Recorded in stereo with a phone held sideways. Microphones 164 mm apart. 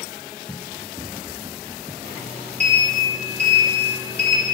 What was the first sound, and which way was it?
Running footsteps, 20° right (ahead or behind).